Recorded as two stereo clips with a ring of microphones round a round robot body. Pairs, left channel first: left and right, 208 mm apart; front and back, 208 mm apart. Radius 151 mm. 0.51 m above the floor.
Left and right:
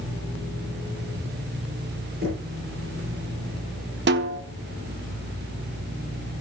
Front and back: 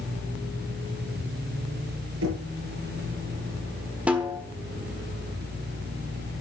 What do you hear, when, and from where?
2.2 s knocking: 150° right, 7 m
4.1 s a snare drum: 95° right, 1.2 m